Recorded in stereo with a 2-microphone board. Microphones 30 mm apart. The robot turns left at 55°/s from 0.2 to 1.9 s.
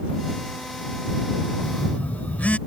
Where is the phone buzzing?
70° left (ahead or behind); by 2.6 s 60° left (ahead or behind).